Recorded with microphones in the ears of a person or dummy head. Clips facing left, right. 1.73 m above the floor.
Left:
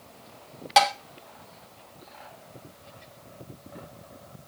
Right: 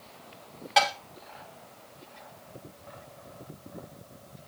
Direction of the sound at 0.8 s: 60° left (ahead or behind).